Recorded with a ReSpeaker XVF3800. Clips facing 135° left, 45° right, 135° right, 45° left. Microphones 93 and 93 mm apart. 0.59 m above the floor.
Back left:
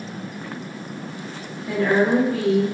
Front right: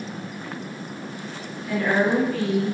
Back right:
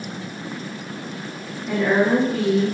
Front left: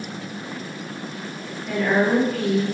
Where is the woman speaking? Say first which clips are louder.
Back left 3 dB, back right 1 dB; 170° left, 0.9 m.